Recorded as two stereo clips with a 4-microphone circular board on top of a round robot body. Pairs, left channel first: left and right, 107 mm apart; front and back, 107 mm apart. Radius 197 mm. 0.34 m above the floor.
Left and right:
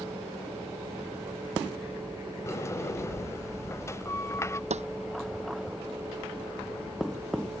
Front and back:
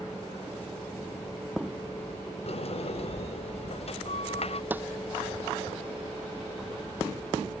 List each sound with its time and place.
2.5 s a sliding door: 25° left
4.7 s a snare drum: 105° right